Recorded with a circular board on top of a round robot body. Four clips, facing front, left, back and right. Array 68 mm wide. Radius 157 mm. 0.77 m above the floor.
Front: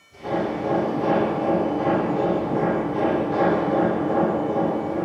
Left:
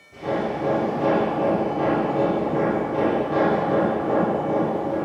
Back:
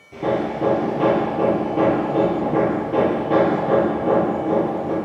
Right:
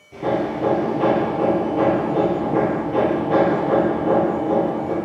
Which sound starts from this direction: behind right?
Hammering, at 0.1 s.